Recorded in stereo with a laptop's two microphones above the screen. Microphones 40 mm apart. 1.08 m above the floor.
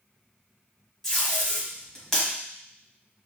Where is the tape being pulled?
10° left (ahead or behind), 1.5 m.